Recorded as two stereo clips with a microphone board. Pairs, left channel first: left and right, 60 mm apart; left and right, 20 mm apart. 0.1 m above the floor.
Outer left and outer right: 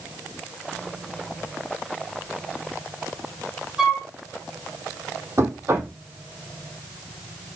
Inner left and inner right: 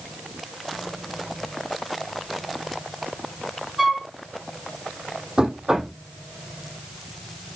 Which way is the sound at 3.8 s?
10° right (ahead or behind).